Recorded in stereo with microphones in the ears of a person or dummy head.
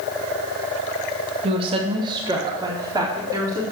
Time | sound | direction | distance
1.4 | a woman speaking | 30° right (ahead or behind) | 2.0 m